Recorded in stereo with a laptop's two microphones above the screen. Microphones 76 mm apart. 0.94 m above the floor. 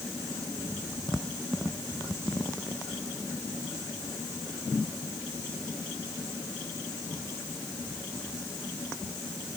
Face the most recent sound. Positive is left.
No sound to turn to.